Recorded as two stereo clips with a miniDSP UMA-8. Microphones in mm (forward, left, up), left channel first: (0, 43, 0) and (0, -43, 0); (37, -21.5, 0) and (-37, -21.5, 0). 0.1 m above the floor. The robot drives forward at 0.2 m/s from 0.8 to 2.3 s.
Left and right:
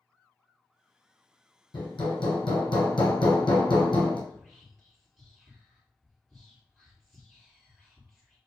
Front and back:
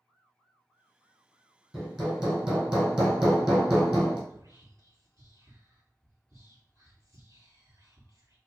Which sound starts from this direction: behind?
Whispering, at 4.3 s.